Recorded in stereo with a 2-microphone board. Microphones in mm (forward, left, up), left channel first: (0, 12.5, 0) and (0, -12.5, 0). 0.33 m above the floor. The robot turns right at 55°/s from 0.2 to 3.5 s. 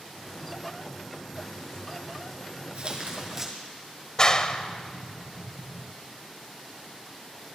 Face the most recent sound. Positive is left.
turn(degrees=35)  # may be behind; listen again after turning